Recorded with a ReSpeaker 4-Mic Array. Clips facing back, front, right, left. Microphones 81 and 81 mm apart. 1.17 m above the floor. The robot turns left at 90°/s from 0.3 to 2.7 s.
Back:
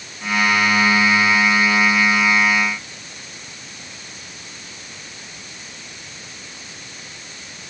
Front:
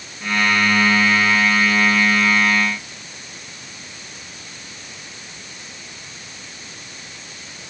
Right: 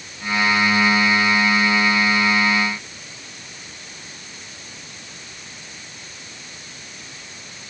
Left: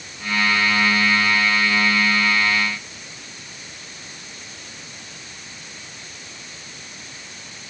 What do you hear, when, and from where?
Only background noise.